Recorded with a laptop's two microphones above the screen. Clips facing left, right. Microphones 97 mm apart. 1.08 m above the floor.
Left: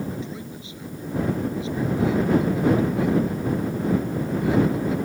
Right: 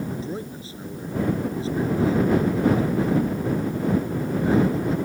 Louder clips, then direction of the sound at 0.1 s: Right 2 dB; 35° right (ahead or behind).